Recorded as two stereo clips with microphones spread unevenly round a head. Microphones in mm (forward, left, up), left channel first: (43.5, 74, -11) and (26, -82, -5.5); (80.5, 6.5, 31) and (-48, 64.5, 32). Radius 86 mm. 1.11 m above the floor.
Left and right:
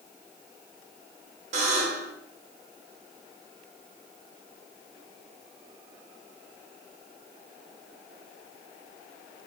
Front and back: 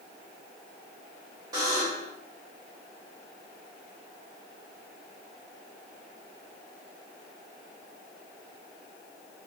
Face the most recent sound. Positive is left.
turn(degrees=-135)